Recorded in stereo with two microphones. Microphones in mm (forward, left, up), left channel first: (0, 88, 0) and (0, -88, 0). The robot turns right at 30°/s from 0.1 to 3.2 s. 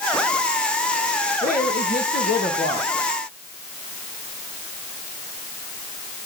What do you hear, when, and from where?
1.4 s a woman speaking: 55° left, 4 m; by 3.0 s 105° left, 4 m